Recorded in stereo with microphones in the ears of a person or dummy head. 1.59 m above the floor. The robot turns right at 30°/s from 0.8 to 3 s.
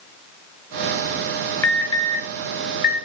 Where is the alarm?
20° left (ahead or behind), 1.9 m; by 3.0 s 55° left (ahead or behind), 1.9 m.